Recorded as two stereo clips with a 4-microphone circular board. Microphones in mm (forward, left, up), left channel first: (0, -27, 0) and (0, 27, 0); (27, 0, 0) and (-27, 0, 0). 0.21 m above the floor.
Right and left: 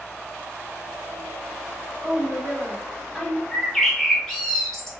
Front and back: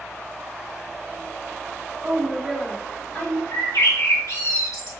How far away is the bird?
About 1.3 m.